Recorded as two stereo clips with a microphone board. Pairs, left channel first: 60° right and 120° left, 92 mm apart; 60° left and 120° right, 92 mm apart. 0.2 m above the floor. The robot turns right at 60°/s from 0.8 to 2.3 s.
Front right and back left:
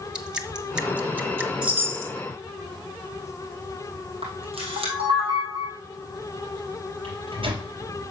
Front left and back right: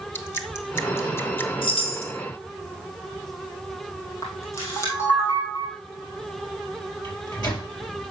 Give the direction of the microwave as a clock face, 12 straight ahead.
9 o'clock.